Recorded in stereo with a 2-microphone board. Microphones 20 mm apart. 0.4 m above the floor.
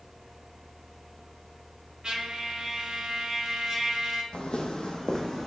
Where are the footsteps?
60° left (ahead or behind), 0.7 m; by 5.5 s 25° left (ahead or behind), 1.0 m.